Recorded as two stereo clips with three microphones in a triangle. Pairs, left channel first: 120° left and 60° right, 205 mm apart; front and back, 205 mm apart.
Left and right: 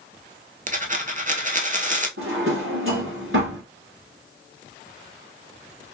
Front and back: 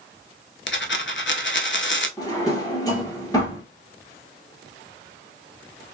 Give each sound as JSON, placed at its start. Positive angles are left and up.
{"t": 0.7, "sound": "a dropped coin", "azimuth_deg": -15, "distance_m": 0.5}
{"t": 2.2, "sound": "a drawer", "azimuth_deg": -70, "distance_m": 1.2}